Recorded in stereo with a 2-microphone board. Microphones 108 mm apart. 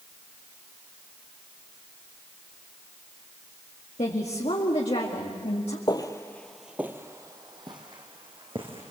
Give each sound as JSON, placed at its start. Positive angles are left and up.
{"t": 4.0, "sound": "a woman speaking", "side_deg": 70, "distance_m": 2.0}
{"t": 5.9, "sound": "footsteps", "side_deg": 40, "distance_m": 1.5}